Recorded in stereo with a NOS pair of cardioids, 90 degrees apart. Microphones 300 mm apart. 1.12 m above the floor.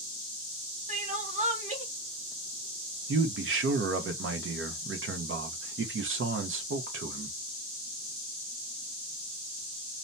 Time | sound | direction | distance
0.9 | crying | 25° right | 1.1 m
3.1 | a man speaking | 45° right | 1.1 m